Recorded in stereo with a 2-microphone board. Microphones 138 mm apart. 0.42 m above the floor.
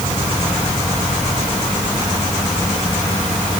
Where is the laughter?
No laughter in this recording.